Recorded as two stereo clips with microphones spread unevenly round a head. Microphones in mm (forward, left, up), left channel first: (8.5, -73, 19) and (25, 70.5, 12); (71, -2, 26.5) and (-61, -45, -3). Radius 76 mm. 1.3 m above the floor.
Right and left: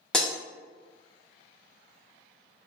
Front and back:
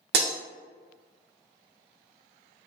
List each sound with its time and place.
0.1 s breaking glass: straight behind, 0.9 m